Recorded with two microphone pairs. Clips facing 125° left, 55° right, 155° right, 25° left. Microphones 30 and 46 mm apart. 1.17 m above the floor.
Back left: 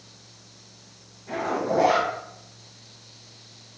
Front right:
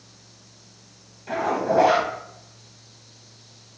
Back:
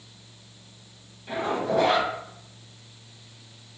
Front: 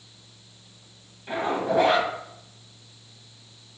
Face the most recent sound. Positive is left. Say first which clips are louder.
# front right 3 dB, front 1 dB
turn(degrees=-45)